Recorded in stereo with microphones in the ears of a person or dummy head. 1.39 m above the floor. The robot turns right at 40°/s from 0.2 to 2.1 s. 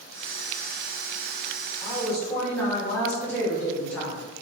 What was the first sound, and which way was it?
A woman speaking, 20° left (ahead or behind).